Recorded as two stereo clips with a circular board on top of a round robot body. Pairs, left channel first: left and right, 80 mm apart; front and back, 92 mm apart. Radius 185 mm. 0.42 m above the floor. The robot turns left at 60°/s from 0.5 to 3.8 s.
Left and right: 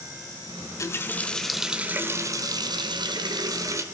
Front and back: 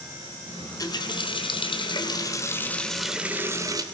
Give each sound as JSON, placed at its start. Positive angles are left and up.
{"t": 0.6, "sound": "a running tap", "azimuth_deg": 55, "distance_m": 1.4}